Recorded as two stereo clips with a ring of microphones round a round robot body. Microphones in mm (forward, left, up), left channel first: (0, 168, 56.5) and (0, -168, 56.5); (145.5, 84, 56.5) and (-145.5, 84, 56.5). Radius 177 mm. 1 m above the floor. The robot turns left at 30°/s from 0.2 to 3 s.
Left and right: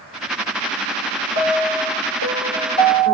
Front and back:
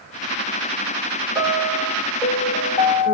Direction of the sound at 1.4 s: 100° left.